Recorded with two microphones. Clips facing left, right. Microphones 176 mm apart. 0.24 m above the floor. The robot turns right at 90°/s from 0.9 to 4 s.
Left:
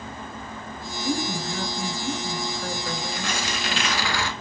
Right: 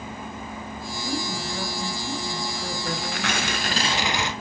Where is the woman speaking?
60° left, 4.5 m; by 3.9 s 40° right, 4.5 m.